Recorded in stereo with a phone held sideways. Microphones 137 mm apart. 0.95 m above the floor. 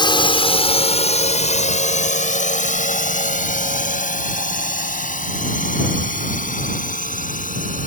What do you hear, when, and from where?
0.0 s a drone: 35° left (ahead or behind); by 7.9 s 80° left